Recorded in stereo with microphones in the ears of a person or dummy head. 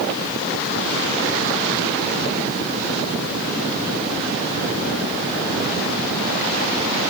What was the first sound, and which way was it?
Only background noise.